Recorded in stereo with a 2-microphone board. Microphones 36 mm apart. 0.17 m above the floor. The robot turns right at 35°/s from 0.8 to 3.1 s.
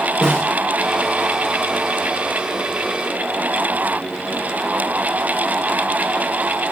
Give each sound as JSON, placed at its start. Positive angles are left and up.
{"t": 0.2, "sound": "a snare drum", "side_deg": 25, "distance_m": 5.5}